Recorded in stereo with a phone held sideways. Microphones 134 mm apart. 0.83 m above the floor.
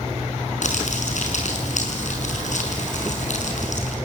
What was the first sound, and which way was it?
Crumpling, 70° left (ahead or behind).